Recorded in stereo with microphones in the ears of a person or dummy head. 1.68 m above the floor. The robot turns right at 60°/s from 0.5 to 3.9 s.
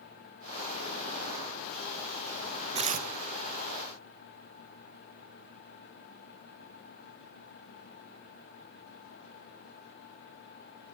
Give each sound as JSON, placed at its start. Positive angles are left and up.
{"t": 2.8, "sound": "tearing paper", "side_deg": -25, "distance_m": 0.6}